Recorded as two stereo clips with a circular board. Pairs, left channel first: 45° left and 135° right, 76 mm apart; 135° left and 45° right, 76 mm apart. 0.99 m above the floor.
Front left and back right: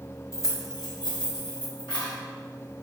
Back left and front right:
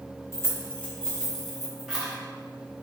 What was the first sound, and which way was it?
Keys jangling, 90° left.